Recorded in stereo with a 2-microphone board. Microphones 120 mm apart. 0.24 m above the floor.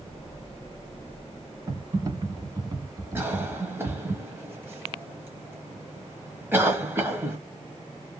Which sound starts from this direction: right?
Typing on a keyboard, at 1.7 s.